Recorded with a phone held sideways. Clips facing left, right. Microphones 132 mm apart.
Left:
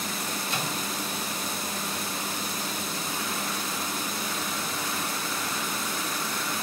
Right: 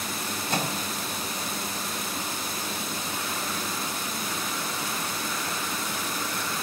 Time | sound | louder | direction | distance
0.5 | a microwave | right 6 dB | 45° right (ahead or behind) | 1.9 m